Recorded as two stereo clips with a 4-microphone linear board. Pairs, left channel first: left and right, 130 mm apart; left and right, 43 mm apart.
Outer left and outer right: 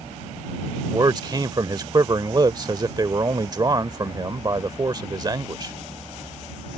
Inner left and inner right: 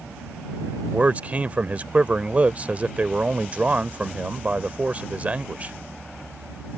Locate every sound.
0.9 s a man speaking: 35° right (ahead or behind)